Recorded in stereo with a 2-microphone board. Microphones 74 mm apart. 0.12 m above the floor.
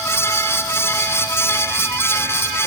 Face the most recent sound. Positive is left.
No sound to turn to.